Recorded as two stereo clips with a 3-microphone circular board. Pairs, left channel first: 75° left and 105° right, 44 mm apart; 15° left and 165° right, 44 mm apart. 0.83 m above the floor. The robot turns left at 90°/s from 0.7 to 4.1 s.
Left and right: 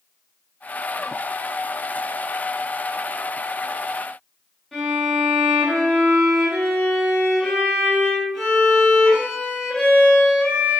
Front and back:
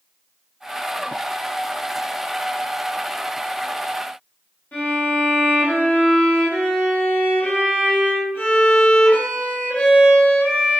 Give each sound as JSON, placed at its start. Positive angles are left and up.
{"t": 4.7, "sound": "a violin", "azimuth_deg": -5, "distance_m": 1.1}